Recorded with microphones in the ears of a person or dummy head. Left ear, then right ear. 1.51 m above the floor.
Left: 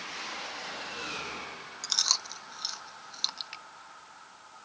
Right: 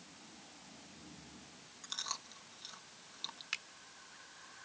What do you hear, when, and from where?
1.8 s chewing: 45° left (ahead or behind)
3.5 s a finger snap: 25° right (ahead or behind)